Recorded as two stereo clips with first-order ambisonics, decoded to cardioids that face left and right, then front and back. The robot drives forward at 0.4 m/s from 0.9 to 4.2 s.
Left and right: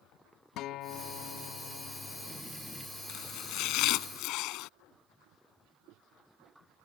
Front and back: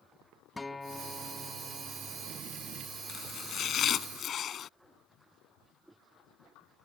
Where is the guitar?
75° left; by 2.4 s 105° left.